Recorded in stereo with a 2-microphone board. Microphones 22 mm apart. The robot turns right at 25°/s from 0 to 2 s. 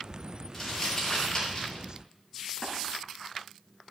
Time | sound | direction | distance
0.5 | crumpling | 10° left (ahead or behind) | 10 m
2.6 | tapping | 40° left (ahead or behind) | 7 m